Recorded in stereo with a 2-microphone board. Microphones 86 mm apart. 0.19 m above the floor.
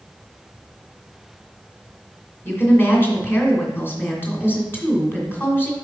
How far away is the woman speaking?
About 2 m.